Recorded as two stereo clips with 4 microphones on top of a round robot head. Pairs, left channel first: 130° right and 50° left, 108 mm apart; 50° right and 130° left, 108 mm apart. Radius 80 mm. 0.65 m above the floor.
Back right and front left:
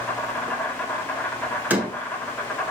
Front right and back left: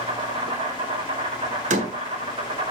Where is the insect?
155° left, 2 m.